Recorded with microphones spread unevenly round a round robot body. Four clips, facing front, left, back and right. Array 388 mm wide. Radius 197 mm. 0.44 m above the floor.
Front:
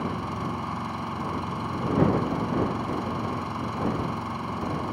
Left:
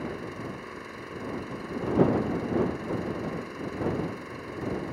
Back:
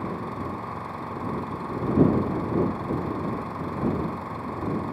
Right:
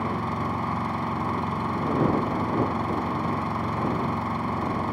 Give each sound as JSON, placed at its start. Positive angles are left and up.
{"t": 0.0, "sound": "an engine running", "azimuth_deg": -75}